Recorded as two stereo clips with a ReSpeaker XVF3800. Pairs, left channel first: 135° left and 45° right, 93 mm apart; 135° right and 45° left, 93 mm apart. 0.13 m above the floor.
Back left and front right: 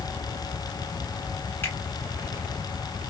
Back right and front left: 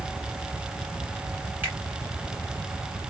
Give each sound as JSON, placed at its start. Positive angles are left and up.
{"t": 1.6, "sound": "a finger snap", "azimuth_deg": 95, "distance_m": 1.6}